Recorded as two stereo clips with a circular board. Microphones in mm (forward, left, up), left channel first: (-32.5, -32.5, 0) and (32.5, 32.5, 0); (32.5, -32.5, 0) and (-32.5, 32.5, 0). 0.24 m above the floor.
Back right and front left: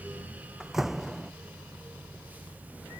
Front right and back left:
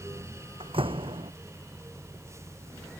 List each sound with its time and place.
0.6 s a door slam: 135° left